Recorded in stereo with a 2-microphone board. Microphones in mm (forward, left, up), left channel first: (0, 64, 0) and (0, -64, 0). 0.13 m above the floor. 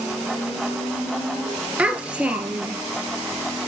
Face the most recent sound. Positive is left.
turn(degrees=-10)  # may be behind; listen again after turning